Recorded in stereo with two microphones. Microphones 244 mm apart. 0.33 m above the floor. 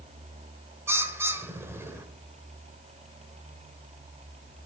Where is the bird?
10° right (ahead or behind), 0.9 m.